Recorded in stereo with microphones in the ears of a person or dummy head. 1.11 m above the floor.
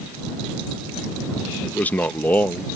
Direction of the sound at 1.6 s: 10° left (ahead or behind).